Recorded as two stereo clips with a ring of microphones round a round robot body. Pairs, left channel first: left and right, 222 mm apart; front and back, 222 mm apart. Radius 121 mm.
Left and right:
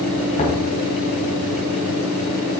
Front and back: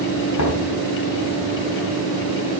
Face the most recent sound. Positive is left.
turn(degrees=25)